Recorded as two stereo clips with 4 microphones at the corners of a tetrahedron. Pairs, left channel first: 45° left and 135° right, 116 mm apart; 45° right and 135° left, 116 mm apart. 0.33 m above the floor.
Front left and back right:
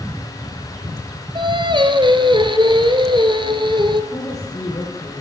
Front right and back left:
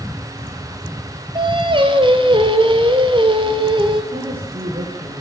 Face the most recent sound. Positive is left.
turn(degrees=100)